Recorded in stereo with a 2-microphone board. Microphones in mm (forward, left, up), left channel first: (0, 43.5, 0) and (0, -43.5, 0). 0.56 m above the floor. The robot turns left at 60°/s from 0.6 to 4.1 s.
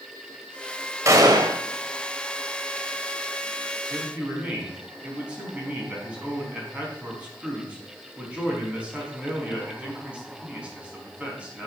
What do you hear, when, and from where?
1.1 s a gunshot: 35° right, 1.6 m; by 1.6 s 65° right, 1.6 m
3.9 s a man speaking: 25° right (ahead or behind), 5 m; by 11.7 s 15° right (ahead or behind), 5 m